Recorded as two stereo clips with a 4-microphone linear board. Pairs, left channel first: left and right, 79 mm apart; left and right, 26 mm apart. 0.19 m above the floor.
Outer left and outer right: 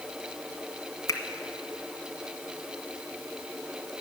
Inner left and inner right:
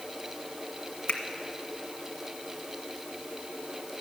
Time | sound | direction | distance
1.1 | a finger snap | 45° left (ahead or behind) | 1.4 m